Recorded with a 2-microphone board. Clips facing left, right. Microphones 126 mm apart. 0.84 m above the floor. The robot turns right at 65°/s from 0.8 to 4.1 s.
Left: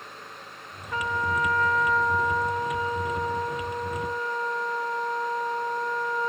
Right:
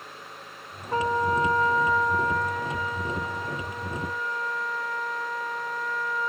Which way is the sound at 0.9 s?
75° right.